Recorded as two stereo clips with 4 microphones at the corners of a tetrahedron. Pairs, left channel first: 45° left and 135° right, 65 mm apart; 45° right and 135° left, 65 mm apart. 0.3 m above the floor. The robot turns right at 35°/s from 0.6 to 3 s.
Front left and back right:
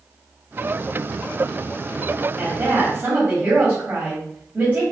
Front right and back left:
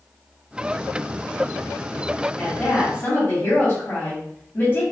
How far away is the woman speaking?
About 2 m.